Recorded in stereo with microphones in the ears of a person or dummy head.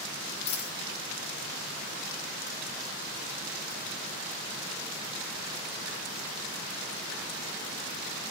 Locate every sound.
0.5 s a dropped coin: 30° left (ahead or behind), 1.0 m